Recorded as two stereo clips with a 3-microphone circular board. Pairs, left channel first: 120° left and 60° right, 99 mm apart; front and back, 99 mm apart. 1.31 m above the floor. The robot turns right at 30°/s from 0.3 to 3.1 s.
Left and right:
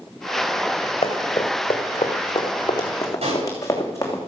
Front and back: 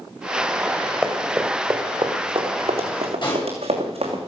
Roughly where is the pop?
Ahead right.